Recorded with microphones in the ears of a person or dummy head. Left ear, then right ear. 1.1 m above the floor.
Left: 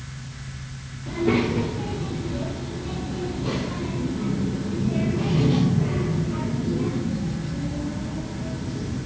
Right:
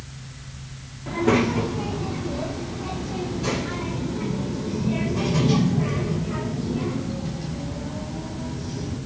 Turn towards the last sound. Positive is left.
turn(degrees=-85)